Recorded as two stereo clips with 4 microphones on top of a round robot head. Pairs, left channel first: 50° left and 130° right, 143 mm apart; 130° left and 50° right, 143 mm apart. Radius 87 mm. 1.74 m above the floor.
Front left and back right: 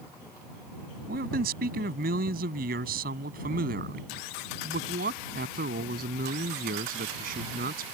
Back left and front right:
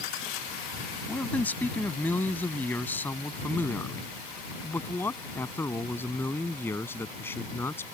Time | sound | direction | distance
1.1 | a man speaking | 150° right | ?